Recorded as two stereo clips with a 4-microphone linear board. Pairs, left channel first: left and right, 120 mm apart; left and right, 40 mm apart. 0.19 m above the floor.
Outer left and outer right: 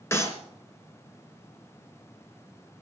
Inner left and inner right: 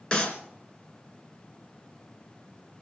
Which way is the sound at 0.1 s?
20° left (ahead or behind).